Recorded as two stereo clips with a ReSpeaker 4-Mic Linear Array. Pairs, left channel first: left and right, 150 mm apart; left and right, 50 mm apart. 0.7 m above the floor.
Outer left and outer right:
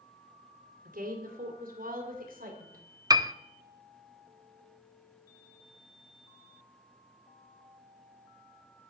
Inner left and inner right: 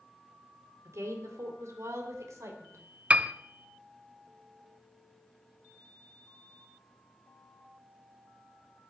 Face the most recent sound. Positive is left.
turn(degrees=-25)  # may be behind; listen again after turning